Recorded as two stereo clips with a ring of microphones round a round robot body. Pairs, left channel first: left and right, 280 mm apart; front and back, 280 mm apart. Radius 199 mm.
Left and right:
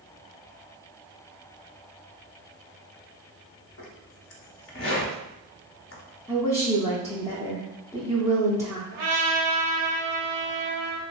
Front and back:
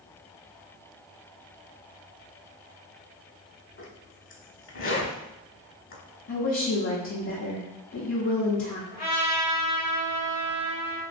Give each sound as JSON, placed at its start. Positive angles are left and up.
{"t": 3.8, "sound": "a zipper", "azimuth_deg": 45, "distance_m": 0.9}
{"t": 6.3, "sound": "a woman speaking", "azimuth_deg": 15, "distance_m": 0.8}
{"t": 8.9, "sound": "a trumpet", "azimuth_deg": -100, "distance_m": 0.8}